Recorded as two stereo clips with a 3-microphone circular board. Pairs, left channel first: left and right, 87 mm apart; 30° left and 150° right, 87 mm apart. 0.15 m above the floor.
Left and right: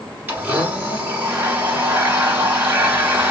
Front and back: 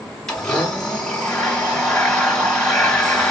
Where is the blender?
50° right, 1.2 m.